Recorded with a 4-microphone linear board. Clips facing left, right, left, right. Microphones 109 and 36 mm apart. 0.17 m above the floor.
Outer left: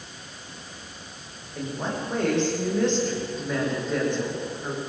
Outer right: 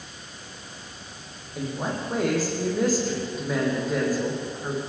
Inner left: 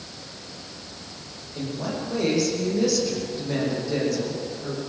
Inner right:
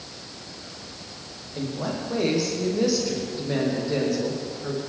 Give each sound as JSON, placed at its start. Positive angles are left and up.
{"t": 1.6, "sound": "a woman speaking", "side_deg": -5, "distance_m": 8.0}